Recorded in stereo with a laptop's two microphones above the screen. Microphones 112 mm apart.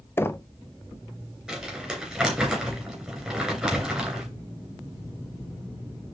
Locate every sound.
0.2 s knocking: 20° left (ahead or behind), 0.7 m
1.5 s crumpling: 10° right (ahead or behind), 3 m